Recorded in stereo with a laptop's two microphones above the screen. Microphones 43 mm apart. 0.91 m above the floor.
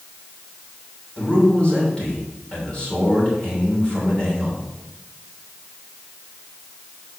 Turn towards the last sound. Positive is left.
turn(degrees=20)  # may be behind; listen again after turning